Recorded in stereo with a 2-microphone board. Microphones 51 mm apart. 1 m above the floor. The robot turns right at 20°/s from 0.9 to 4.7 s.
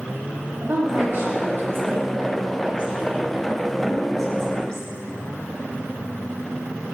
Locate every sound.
0.6 s a woman speaking: 60° right, 2.0 m; by 4.9 s 15° left, 2.0 m